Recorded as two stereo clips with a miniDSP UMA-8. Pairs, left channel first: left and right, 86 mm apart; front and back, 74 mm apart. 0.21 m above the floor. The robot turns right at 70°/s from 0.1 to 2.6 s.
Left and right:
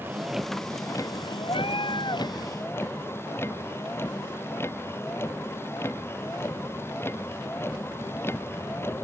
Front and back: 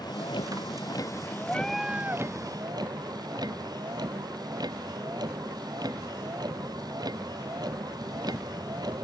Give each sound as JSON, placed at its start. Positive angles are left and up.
{"t": 0.0, "sound": "a vehicle", "azimuth_deg": -25}
{"t": 1.5, "sound": "a cat meowing", "azimuth_deg": 70}